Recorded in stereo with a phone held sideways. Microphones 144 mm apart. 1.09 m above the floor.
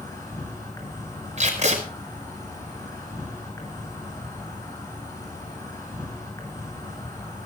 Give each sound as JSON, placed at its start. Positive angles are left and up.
{"t": 0.0, "sound": "an insect", "side_deg": 25, "distance_m": 9.0}
{"t": 1.4, "sound": "tape being pulled", "side_deg": -50, "distance_m": 5.0}